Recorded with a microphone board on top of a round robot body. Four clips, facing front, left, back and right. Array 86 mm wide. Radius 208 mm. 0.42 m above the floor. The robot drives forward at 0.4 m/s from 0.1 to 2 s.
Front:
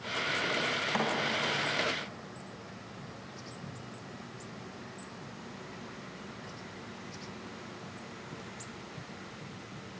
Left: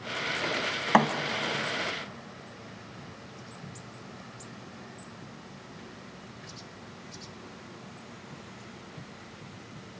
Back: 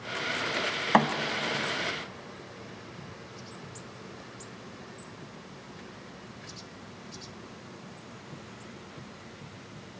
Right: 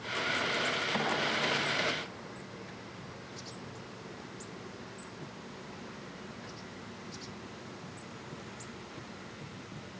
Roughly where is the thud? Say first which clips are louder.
Left 13 dB, back 10 dB; behind left.